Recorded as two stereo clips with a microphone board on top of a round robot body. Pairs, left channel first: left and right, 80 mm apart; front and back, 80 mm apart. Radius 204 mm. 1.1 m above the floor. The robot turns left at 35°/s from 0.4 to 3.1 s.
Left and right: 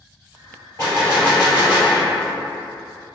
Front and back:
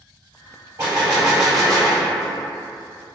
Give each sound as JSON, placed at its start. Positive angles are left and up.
{"t": 0.8, "sound": "a gunshot", "azimuth_deg": 145, "distance_m": 1.8}